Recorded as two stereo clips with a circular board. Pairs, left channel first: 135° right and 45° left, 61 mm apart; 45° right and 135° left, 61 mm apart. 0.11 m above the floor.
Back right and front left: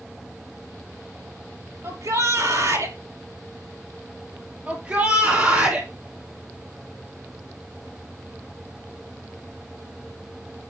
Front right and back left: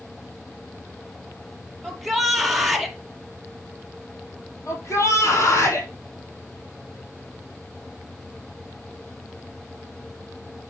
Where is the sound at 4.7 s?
15° right, 4 m.